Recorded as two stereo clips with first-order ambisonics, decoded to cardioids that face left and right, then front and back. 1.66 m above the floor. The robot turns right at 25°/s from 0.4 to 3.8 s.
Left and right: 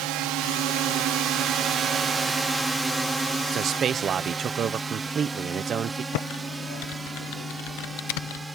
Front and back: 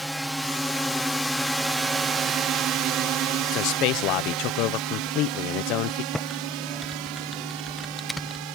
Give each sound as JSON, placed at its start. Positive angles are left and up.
{"t": 0.0, "sound": "a drone", "azimuth_deg": -90}
{"t": 3.5, "sound": "a man speaking", "azimuth_deg": -35}
{"t": 6.1, "sound": "typing on a keyboard", "azimuth_deg": 90}